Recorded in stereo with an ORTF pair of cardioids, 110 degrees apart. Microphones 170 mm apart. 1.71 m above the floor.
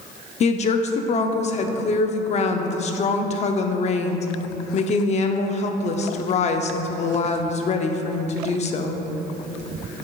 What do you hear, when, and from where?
0.4 s a woman speaking: 45° left, 0.7 m